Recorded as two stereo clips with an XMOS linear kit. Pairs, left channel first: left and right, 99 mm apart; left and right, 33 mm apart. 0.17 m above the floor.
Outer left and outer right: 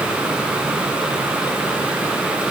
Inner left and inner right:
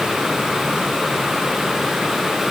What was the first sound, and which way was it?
Only background noise.